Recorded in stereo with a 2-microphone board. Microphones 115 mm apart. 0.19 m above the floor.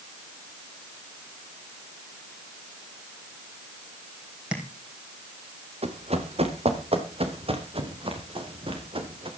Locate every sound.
4.5 s tapping: 10° right (ahead or behind), 4 m
5.8 s running footsteps: 65° right (ahead or behind), 3 m; by 9.3 s 50° right (ahead or behind), 5 m